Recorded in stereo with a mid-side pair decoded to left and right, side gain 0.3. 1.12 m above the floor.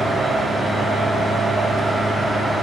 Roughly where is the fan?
Ahead right.